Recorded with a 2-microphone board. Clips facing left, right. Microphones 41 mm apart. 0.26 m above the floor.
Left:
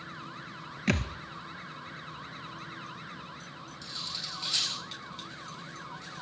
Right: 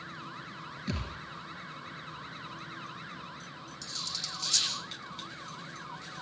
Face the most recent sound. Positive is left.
turn(degrees=20)  # may be behind; listen again after turning